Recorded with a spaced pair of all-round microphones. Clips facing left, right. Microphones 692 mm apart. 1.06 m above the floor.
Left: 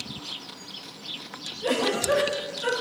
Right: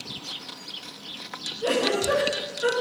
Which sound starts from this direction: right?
A giggle, at 1.6 s.